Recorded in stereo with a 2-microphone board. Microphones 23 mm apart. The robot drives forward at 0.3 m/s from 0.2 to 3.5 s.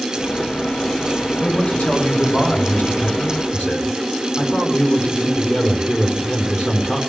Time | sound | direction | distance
1.4 | a man speaking | 70° left (ahead or behind) | 6 m